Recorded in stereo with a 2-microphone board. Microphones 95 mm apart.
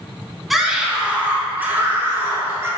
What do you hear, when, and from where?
0.5 s a scream: centre (ahead or behind), 1.4 m; by 2.7 s 25° right (ahead or behind), 2.5 m